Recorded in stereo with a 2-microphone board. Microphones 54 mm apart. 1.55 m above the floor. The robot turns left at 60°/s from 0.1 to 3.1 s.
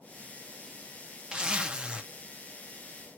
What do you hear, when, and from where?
1.3 s a zipper: 20° right (ahead or behind), 0.7 m